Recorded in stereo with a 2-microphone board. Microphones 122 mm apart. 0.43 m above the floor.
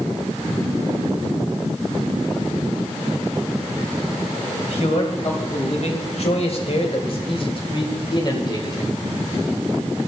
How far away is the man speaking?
About 2.5 m.